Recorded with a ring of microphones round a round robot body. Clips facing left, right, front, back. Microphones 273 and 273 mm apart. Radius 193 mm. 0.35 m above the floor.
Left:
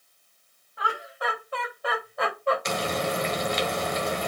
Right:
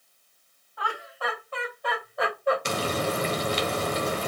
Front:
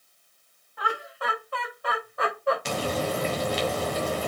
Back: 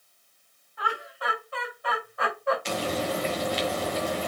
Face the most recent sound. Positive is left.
turn(degrees=-40)